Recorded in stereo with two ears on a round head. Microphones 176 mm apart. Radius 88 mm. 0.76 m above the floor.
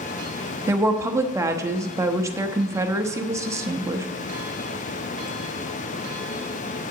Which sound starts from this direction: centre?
A woman speaking, at 0.7 s.